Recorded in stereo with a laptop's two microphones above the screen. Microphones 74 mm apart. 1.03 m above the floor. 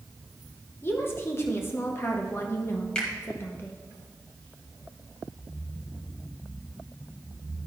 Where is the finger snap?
15° left (ahead or behind), 1.2 m.